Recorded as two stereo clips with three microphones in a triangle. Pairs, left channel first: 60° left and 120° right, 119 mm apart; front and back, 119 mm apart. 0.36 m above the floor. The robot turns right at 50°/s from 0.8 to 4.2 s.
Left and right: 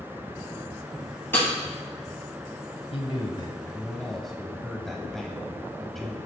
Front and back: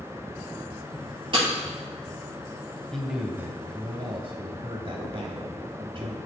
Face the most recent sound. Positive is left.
turn(degrees=150)